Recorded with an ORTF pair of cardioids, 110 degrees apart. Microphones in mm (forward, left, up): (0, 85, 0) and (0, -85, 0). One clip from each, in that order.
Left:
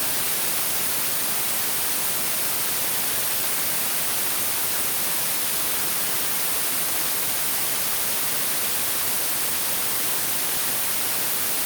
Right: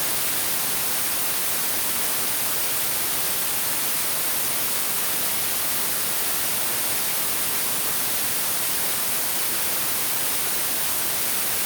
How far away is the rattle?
I don't hear a rattle.